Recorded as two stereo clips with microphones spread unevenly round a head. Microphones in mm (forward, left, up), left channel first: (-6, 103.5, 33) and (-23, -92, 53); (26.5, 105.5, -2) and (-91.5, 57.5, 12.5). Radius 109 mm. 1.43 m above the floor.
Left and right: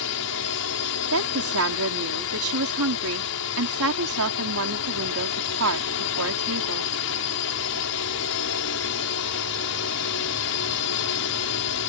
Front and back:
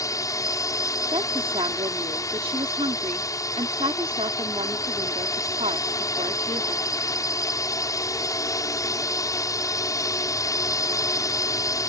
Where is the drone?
85° left.